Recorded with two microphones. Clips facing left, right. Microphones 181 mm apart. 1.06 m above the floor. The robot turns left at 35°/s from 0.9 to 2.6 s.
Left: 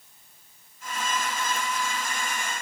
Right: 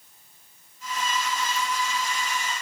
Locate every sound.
Only background noise.